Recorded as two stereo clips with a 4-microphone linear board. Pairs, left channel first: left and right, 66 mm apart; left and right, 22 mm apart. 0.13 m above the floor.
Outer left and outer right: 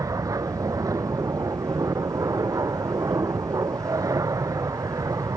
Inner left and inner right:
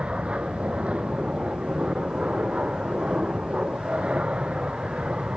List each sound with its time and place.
0.0 s an aircraft: 60° right (ahead or behind)